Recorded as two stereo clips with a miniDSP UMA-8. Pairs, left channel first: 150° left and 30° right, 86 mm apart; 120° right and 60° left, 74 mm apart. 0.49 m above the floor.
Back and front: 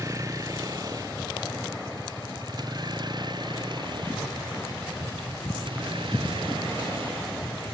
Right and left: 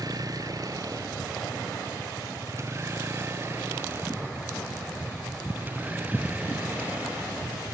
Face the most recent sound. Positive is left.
turn(degrees=-15)